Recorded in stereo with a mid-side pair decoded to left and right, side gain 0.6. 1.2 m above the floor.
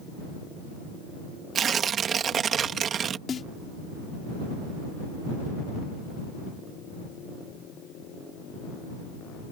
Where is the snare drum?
35° left.